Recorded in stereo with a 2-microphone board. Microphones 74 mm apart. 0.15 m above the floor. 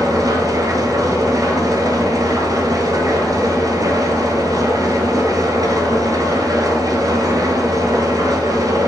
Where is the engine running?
55° right (ahead or behind), 1.4 m.